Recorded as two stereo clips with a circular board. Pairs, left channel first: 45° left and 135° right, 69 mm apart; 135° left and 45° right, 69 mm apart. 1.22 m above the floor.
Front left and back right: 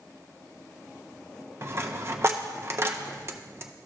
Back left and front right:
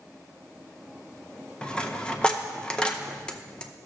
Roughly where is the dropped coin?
Behind right.